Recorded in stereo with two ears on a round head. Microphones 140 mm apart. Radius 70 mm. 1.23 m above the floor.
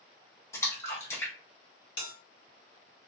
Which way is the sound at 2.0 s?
35° left (ahead or behind).